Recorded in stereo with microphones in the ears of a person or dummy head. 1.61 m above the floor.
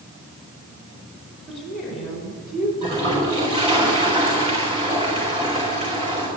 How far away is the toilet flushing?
About 4 m.